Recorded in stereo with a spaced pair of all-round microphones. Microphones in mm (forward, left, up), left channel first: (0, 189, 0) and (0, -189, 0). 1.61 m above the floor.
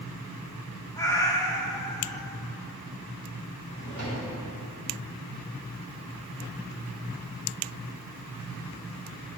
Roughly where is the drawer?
Left.